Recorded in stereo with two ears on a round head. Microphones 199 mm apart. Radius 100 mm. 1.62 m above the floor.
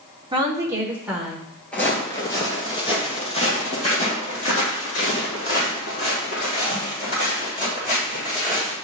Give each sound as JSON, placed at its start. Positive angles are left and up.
{"t": 0.3, "sound": "a woman speaking", "side_deg": -20, "distance_m": 1.3}
{"t": 1.7, "sound": "footsteps", "side_deg": 5, "distance_m": 1.9}